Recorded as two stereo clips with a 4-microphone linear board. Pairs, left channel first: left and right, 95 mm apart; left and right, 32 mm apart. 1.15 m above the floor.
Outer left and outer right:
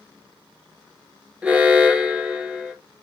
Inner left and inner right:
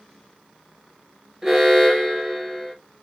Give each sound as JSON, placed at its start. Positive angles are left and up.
{"t": 1.4, "sound": "an alarm", "side_deg": -10, "distance_m": 1.1}